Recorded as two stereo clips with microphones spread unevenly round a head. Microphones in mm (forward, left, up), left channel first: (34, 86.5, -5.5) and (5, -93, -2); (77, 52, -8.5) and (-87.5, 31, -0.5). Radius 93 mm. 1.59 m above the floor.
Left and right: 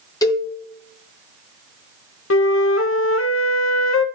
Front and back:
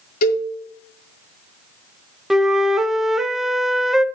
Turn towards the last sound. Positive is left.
turn(degrees=100)